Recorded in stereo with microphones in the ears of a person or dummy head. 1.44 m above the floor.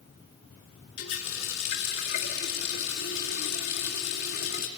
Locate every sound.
1.0 s a running tap: 60° left (ahead or behind), 2 m